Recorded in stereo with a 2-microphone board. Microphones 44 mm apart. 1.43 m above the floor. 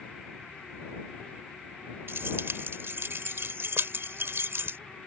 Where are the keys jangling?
65° right (ahead or behind).